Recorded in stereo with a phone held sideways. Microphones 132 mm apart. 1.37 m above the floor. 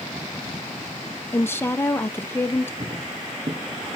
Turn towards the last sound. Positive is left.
turn(degrees=-55)  # may be behind; listen again after turning